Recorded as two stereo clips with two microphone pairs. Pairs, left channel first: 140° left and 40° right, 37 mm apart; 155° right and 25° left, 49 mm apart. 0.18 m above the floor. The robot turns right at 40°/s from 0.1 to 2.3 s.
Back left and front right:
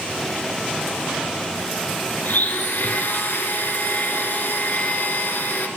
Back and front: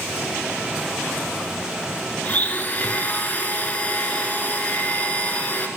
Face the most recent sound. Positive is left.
turn(degrees=150)